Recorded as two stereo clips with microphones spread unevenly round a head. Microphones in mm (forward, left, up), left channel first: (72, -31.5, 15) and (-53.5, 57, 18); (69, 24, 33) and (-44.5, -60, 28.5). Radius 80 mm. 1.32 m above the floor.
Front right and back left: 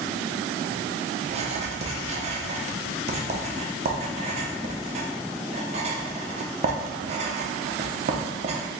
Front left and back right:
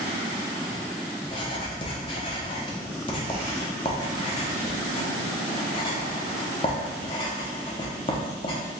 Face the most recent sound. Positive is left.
turn(degrees=95)